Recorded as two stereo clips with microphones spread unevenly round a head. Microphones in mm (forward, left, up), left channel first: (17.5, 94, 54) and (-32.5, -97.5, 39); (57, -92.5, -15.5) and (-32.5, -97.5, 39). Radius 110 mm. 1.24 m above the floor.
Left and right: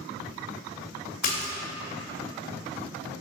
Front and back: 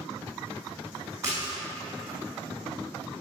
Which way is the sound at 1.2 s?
120° left.